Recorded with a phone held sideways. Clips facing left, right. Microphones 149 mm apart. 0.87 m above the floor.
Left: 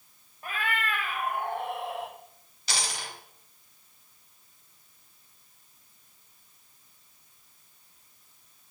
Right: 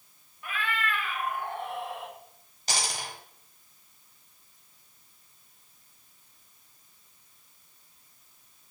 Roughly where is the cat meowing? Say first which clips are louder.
Left 1 dB; left.